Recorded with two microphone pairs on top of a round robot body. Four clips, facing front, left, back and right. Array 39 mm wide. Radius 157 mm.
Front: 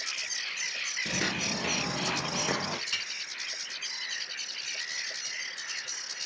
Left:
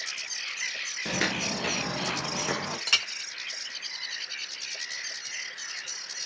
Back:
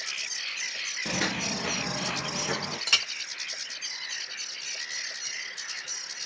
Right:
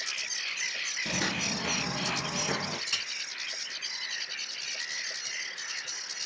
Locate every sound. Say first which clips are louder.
1.1 s footsteps: left 5 dB, back 3 dB; 100° left, 1.1 m; by 2.8 s 50° left, 3 m
2.9 s a clink: left 12 dB, back 8 dB; 140° left, 0.6 m